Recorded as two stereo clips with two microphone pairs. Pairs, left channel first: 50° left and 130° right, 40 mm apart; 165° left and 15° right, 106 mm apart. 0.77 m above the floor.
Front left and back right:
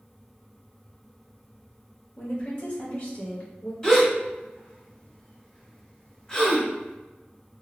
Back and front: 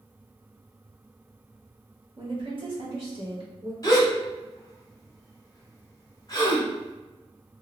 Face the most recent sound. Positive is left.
turn(degrees=115)